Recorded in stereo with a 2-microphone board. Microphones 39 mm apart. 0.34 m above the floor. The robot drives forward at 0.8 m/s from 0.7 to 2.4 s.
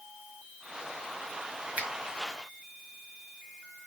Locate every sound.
1.8 s a finger snap: 50° right (ahead or behind), 2.5 m